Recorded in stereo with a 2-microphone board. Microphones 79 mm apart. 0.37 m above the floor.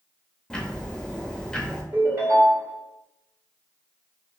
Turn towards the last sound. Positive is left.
turn(degrees=-45)  # may be behind; listen again after turning